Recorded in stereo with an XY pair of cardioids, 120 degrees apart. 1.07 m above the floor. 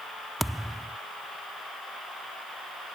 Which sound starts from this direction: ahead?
A thud, at 0.4 s.